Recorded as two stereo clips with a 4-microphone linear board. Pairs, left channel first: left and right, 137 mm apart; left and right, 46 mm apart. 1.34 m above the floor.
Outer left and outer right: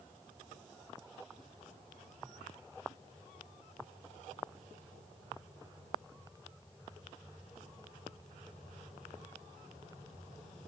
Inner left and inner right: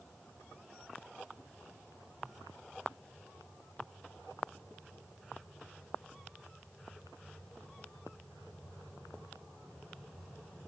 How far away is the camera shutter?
No camera shutter in this recording.